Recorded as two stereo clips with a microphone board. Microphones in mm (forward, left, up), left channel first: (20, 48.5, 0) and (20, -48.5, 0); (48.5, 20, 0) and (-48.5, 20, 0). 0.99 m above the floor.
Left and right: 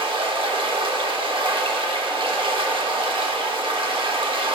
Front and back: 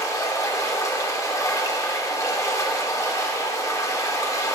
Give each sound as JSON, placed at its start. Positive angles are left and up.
{"t": 0.0, "sound": "running water", "azimuth_deg": -55, "distance_m": 1.3}